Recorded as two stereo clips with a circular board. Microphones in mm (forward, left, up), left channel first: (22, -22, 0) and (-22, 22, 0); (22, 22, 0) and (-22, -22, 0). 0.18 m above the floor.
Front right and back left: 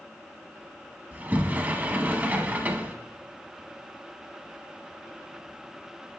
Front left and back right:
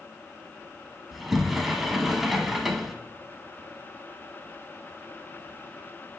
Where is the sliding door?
140° left, 0.8 m.